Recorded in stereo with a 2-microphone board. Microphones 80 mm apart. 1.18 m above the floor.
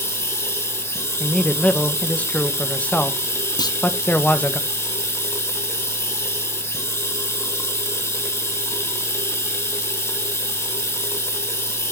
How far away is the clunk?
About 0.8 m.